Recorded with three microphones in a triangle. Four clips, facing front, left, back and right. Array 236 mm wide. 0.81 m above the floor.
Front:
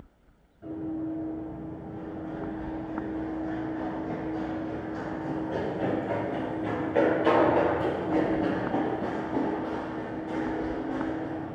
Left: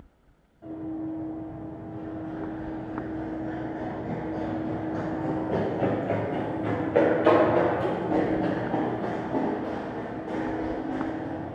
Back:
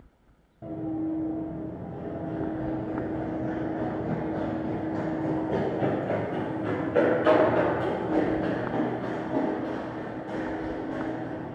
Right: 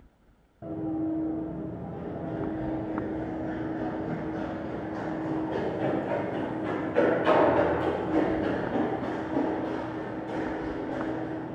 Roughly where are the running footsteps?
Behind right.